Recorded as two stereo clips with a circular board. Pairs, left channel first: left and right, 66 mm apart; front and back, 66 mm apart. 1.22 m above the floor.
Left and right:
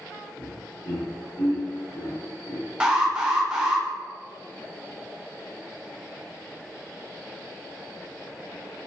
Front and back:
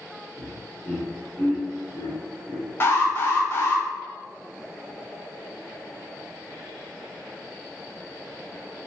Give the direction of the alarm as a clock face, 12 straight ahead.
1 o'clock.